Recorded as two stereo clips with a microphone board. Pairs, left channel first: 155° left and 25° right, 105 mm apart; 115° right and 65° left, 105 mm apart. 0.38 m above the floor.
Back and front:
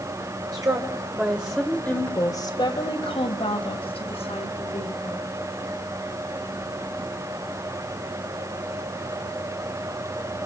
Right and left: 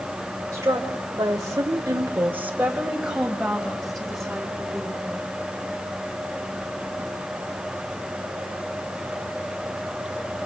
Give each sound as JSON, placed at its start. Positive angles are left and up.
{"t": 0.5, "sound": "a woman speaking", "azimuth_deg": 15, "distance_m": 2.5}